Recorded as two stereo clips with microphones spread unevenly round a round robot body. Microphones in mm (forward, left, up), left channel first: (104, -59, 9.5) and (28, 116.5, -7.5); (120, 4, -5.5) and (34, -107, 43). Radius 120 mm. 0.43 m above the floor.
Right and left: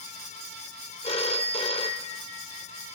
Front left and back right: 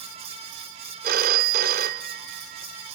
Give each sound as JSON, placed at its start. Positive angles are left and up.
{"t": 1.0, "sound": "a phone ringing", "azimuth_deg": -130, "distance_m": 0.6}